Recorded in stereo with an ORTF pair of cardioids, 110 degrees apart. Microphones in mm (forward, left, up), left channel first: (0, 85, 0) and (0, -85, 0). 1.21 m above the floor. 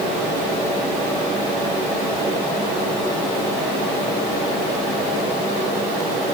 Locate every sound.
Only background noise.